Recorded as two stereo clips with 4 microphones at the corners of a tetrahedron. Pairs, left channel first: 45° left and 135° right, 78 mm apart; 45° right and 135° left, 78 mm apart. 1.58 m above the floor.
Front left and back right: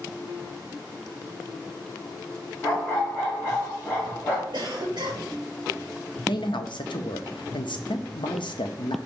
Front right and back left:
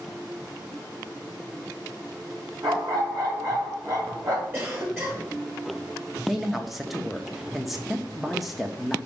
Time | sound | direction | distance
2.6 | a dog barking | 110° left | 1.5 m
4.5 | a cough | 160° right | 1.2 m
6.3 | a man speaking | 45° left | 0.6 m